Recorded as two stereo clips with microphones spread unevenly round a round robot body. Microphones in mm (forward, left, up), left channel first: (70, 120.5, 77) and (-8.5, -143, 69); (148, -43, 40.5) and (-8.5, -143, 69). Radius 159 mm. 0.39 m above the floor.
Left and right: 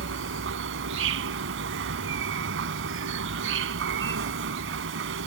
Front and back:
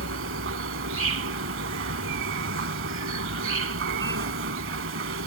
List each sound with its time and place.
0.0 s an insect: 155° right